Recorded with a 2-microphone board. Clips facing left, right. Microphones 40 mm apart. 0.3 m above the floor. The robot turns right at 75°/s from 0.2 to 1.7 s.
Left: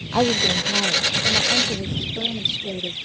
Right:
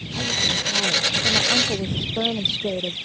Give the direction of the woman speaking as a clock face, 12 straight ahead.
8 o'clock.